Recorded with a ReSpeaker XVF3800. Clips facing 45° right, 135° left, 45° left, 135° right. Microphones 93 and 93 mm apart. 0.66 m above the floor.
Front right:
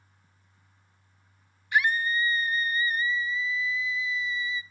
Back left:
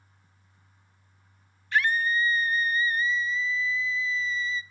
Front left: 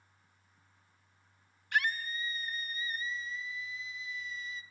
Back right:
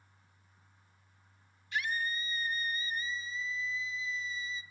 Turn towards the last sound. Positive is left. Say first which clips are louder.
# even, front left 2 dB
turn(degrees=30)